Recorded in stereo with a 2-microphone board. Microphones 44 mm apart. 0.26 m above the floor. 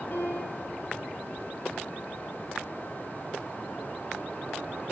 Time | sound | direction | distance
0.1 | a piano | 50° left (ahead or behind) | 9.5 m